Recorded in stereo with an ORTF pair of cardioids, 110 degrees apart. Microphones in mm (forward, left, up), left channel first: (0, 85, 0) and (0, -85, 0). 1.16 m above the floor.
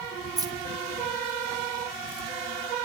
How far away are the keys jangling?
About 1.6 m.